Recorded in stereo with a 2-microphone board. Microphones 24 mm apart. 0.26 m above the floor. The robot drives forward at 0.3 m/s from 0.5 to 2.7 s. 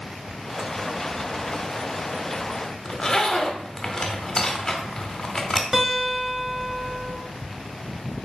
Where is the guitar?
15° right (ahead or behind), 1.4 m.